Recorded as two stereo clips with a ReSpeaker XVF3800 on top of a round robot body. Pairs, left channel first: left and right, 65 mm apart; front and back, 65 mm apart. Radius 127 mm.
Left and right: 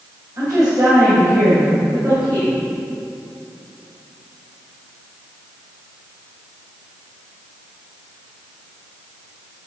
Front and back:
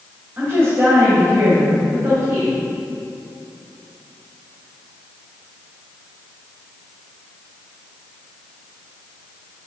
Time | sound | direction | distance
0.4 | a woman speaking | 125° right | 2.5 m